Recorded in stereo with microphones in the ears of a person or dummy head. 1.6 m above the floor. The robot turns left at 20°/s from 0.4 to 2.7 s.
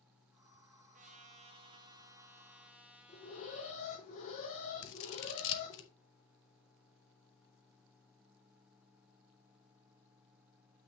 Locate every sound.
0.9 s a trumpet: 140° right, 0.7 m; by 3.8 s 175° right, 0.7 m
3.1 s an alarm: 40° left (ahead or behind), 2.5 m
4.8 s scissors: 65° left (ahead or behind), 0.8 m